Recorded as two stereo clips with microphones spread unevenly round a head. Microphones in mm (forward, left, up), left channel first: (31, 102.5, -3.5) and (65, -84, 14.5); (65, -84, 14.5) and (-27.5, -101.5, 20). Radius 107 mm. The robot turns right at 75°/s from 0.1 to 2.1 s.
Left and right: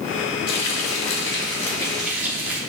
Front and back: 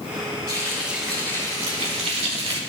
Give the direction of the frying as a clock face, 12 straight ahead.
9 o'clock.